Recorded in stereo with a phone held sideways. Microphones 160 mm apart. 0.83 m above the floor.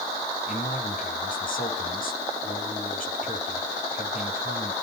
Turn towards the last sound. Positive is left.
turn(degrees=65)  # may be behind; listen again after turning